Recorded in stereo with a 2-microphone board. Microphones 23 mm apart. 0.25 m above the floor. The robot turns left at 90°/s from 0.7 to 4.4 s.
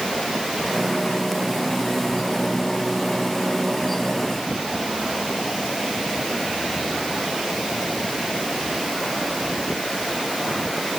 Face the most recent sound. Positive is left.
No sound to turn to.